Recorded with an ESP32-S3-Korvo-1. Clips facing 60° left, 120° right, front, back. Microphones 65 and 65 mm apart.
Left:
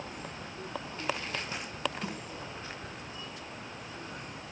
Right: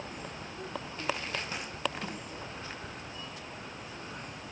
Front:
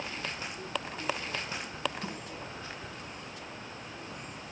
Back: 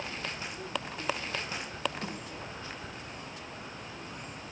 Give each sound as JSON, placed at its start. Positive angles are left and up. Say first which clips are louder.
{"t": 2.0, "sound": "a snare drum", "louder": "left 1 dB, back 1 dB", "azimuth_deg": 150, "distance_m": 2.5}